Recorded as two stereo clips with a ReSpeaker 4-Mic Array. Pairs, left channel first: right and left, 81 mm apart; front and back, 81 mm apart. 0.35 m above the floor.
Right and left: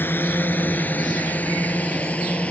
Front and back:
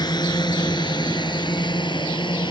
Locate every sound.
0.0 s a drone: 30° right; by 2.5 s 20° right